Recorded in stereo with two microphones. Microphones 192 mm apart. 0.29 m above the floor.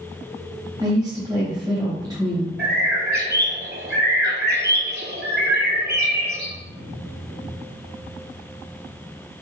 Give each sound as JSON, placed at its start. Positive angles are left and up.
{"t": 0.8, "sound": "a woman speaking", "side_deg": -20, "distance_m": 1.3}
{"t": 2.6, "sound": "a bird", "side_deg": -60, "distance_m": 1.2}